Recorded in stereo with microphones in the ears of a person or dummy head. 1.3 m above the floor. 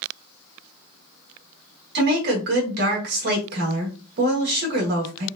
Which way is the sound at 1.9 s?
60° right (ahead or behind).